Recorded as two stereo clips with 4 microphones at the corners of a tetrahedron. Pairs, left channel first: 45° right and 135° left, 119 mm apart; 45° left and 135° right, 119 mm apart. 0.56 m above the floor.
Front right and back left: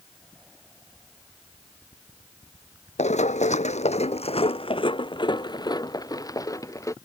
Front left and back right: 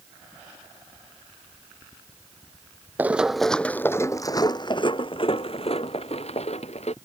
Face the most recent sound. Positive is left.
turn(degrees=20)